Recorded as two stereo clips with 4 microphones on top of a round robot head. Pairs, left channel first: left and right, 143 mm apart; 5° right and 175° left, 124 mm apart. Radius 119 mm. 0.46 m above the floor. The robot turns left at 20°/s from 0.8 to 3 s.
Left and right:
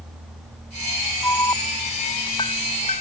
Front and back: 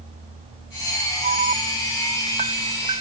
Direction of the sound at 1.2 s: 165° left.